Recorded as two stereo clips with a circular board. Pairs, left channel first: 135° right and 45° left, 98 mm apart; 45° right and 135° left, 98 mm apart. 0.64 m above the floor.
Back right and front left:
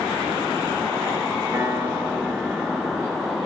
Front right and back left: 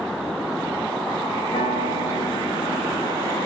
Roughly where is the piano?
Ahead.